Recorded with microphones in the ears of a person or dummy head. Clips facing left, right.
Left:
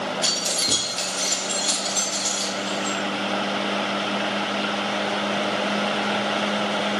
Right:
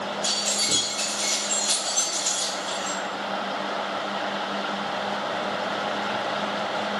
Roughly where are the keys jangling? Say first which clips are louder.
Left 2 dB; left.